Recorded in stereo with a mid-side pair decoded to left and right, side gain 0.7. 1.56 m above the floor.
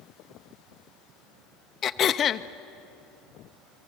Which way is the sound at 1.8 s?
35° left.